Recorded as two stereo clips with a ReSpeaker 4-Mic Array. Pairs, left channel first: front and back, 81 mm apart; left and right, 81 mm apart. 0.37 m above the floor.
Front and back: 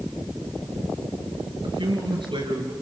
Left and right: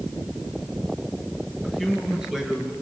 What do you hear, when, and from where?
1.6 s a man speaking: 175° right, 5 m